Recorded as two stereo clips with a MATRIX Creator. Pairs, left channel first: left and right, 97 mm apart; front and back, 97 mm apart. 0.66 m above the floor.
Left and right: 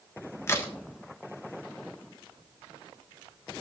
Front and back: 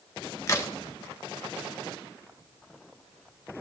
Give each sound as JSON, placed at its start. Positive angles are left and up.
{"t": 0.5, "sound": "a crack", "azimuth_deg": 40, "distance_m": 1.6}